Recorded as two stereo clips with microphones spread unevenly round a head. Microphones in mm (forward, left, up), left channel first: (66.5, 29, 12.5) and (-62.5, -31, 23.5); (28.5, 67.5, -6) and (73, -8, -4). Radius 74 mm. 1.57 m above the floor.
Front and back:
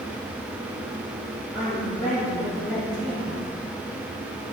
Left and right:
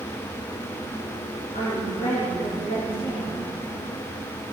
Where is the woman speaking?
110° left, 3.5 m.